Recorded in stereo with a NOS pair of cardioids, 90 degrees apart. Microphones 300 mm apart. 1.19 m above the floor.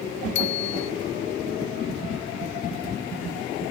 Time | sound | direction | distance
0.3 | a bicycle bell | 65° left | ?